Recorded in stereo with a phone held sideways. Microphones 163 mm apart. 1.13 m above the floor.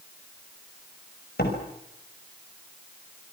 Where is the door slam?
70° left (ahead or behind), 5 m.